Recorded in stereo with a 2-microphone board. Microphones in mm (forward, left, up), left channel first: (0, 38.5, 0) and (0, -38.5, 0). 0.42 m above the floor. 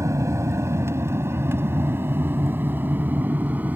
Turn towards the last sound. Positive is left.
turn(degrees=-20)  # may be behind; listen again after turning